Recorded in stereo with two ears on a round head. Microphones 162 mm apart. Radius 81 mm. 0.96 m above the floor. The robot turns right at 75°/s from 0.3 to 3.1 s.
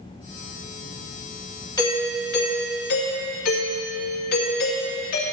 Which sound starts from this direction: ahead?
A doorbell, at 1.8 s.